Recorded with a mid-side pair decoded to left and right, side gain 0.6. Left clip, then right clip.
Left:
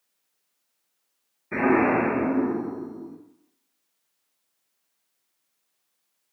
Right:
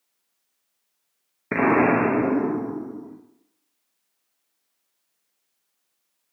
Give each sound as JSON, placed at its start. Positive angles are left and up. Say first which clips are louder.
{"t": 1.5, "sound": "an explosion", "louder": "right 2 dB", "azimuth_deg": -60, "distance_m": 0.7}